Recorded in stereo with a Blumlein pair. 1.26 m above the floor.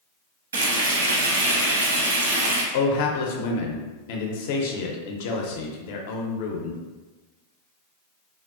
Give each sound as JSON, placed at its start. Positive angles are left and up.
{"t": 0.5, "sound": "frying", "azimuth_deg": -65, "distance_m": 0.5}
{"t": 2.7, "sound": "a man speaking", "azimuth_deg": 50, "distance_m": 0.5}